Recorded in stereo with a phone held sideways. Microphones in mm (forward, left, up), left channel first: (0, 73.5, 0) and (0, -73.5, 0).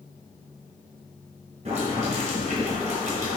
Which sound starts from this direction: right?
Boiling, at 1.6 s.